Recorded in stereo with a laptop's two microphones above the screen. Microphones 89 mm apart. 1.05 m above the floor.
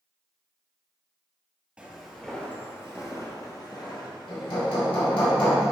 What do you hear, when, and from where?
1.8 s footsteps: 10° right (ahead or behind), 1.4 m; by 5.3 s 70° left (ahead or behind), 3 m
4.3 s hammering: 90° left, 2.5 m